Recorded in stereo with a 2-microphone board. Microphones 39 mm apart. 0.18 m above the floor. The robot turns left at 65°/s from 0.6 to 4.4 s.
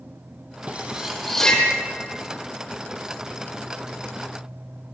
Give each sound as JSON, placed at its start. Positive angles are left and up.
{"t": 0.7, "sound": "cutlery clinking", "side_deg": -35, "distance_m": 4.5}